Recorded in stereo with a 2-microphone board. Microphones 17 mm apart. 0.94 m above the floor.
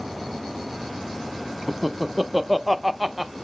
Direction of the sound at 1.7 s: 10° right (ahead or behind).